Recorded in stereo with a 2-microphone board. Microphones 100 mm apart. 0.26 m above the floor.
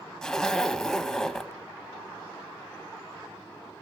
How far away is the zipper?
About 0.7 m.